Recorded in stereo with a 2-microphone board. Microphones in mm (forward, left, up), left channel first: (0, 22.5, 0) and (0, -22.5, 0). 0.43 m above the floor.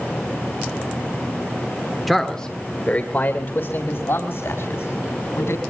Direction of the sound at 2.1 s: Centre (ahead or behind).